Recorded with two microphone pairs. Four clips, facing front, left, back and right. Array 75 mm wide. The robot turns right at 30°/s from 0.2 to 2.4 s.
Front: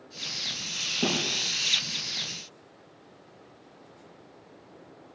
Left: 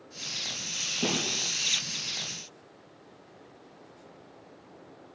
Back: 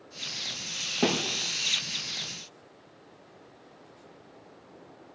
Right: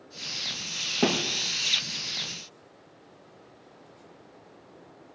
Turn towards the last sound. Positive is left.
turn(degrees=-80)